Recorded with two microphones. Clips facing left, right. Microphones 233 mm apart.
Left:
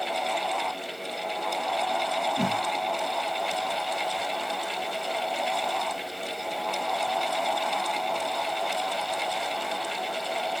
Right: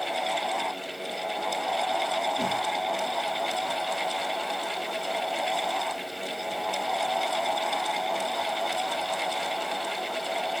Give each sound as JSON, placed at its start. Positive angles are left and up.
{"t": 2.4, "sound": "a whoosh", "side_deg": 65, "distance_m": 2.5}